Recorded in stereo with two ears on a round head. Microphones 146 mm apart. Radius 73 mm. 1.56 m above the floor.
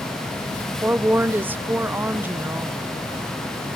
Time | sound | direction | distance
0.8 | a woman speaking | 10° right (ahead or behind) | 0.6 m